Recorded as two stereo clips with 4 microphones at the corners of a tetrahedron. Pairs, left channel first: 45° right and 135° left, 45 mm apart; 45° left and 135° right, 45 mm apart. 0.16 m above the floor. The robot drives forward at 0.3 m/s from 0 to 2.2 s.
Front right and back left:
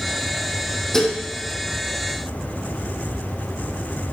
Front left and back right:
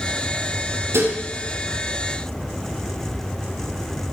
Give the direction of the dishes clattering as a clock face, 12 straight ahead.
4 o'clock.